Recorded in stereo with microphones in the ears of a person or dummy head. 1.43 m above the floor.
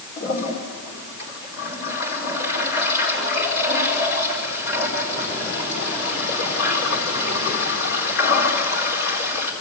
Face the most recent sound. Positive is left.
turn(degrees=55)  # may be behind; listen again after turning